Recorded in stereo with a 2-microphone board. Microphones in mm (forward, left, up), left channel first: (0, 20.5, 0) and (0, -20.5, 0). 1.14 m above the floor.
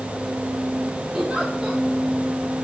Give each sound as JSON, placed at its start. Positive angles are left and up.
{"t": 1.1, "sound": "a giggle", "side_deg": -20, "distance_m": 4.5}